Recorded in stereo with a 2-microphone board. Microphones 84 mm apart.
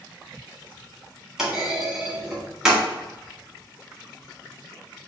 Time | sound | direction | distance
1.4 | a clunk | 5° right (ahead or behind) | 1.7 m